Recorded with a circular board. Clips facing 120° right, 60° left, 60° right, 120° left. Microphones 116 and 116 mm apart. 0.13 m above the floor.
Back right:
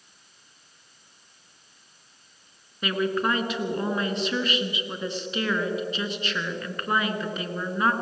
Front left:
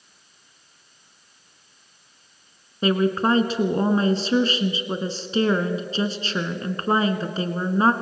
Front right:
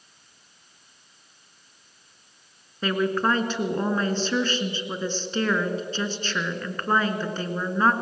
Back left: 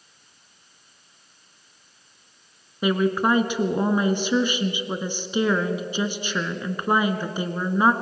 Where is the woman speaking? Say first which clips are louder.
Front left 5 dB, back left 3 dB; 55° left, 1.7 m.